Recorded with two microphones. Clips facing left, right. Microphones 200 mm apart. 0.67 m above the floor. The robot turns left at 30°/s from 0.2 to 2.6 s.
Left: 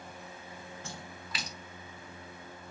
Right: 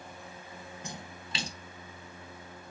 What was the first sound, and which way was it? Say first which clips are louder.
A splash: right 1 dB; 15° right (ahead or behind).